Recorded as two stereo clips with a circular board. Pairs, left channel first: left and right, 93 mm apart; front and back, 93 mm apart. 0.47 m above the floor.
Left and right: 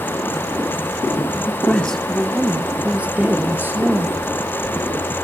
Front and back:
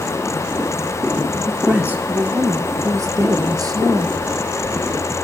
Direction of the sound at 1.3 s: 105° left.